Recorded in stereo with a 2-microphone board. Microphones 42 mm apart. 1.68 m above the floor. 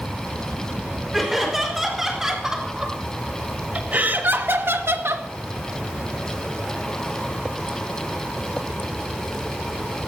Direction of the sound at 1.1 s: 5° right (ahead or behind).